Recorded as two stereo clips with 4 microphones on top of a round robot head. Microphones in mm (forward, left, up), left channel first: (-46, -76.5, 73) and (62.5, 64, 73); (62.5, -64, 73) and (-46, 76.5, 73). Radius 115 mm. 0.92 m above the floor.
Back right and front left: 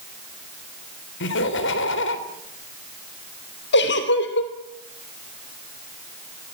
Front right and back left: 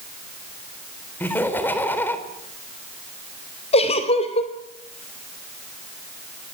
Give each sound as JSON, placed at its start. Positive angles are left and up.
{"t": 1.2, "sound": "laughter", "azimuth_deg": -130, "distance_m": 4.0}
{"t": 3.7, "sound": "a giggle", "azimuth_deg": -110, "distance_m": 2.5}